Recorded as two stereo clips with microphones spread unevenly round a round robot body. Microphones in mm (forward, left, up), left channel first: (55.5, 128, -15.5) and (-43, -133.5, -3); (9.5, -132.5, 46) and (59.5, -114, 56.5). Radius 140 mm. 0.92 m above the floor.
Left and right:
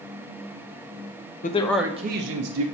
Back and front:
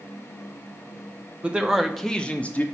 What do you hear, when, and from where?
1.4 s a man speaking: 95° left, 0.6 m; by 2.6 s 110° right, 0.8 m